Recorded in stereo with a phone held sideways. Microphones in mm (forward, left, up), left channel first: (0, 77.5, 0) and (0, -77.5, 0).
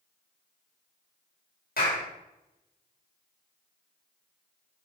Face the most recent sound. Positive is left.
turn(degrees=80)